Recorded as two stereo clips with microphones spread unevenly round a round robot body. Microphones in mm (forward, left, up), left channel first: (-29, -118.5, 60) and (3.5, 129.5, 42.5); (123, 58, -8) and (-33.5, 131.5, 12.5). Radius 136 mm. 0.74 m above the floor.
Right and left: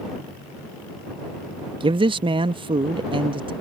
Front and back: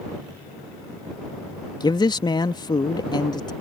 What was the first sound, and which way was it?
A man speaking, 25° left.